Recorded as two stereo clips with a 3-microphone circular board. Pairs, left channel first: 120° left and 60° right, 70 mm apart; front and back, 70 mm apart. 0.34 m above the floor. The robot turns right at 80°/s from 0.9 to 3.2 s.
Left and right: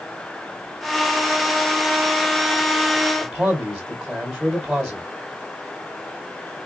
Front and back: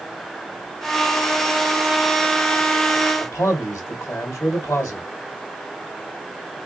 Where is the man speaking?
25° left, 1.7 m.